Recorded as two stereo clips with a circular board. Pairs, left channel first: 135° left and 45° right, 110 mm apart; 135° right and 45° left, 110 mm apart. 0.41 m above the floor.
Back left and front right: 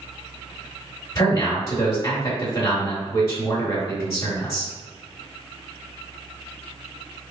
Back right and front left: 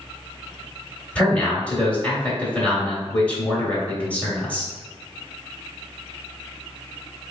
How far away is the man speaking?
About 1.3 m.